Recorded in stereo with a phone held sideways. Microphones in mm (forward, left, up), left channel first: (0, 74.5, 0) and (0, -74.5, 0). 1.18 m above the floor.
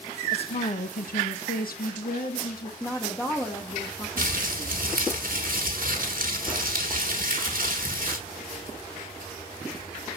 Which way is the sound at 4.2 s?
65° right (ahead or behind).